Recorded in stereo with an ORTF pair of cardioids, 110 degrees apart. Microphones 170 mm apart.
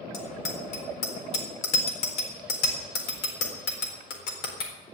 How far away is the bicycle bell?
About 4 m.